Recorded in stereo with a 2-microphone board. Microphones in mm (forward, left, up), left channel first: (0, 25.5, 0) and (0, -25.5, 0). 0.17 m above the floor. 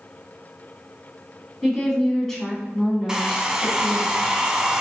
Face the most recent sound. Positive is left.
turn(degrees=-15)  # may be behind; listen again after turning